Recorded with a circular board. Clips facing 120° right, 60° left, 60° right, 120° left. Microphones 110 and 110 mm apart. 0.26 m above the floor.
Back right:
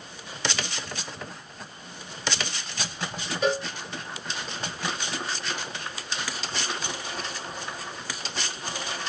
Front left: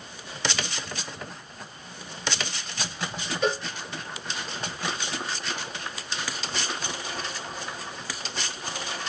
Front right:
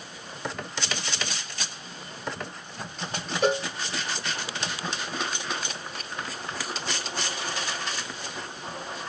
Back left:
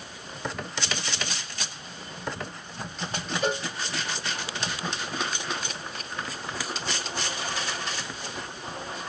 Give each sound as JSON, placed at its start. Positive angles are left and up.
{"t": 3.4, "sound": "a cowbell", "azimuth_deg": -35, "distance_m": 4.5}